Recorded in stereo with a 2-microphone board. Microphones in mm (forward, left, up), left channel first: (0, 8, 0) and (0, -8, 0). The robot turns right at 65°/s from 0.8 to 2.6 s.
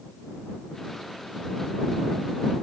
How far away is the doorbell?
No doorbell in this recording.